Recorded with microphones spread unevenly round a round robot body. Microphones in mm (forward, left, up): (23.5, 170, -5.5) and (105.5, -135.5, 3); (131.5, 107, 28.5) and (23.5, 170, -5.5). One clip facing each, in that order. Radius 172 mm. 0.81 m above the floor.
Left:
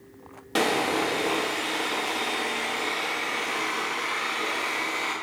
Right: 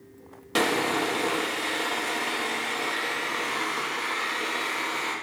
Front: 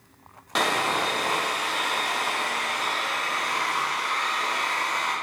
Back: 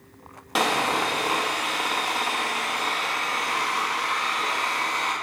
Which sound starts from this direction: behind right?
Sawing, at 0.6 s.